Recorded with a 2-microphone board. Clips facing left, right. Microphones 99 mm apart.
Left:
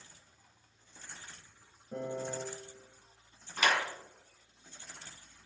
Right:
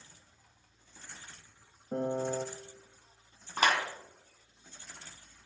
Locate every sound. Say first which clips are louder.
1.9 s a piano: right 5 dB; 50° right (ahead or behind), 0.6 m
3.6 s a clap: right 2 dB; 40° right (ahead or behind), 2.5 m